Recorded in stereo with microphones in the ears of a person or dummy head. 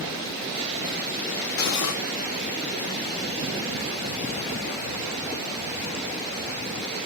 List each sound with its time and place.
1.6 s cutlery clinking: 75° left (ahead or behind), 1.2 m